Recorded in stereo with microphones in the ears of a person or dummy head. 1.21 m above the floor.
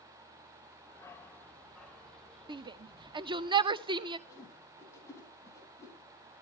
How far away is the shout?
About 0.7 m.